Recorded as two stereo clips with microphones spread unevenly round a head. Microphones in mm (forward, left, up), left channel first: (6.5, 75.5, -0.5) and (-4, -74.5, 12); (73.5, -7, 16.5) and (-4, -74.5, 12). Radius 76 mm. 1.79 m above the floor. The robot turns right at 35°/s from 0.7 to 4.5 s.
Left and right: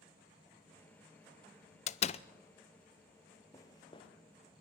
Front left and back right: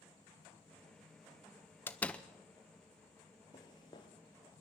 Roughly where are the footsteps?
Ahead.